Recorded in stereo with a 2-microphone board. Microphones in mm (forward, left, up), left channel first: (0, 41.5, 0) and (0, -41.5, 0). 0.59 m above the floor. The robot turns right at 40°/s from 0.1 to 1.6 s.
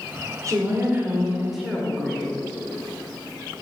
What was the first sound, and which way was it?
A woman speaking, 45° right.